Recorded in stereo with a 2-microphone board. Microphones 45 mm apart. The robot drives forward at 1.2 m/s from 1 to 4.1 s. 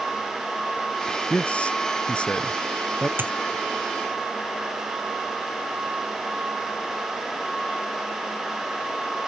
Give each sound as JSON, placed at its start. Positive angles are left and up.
{"t": 1.3, "sound": "a man speaking", "side_deg": 25}
{"t": 3.2, "sound": "a dropped coin", "side_deg": -50}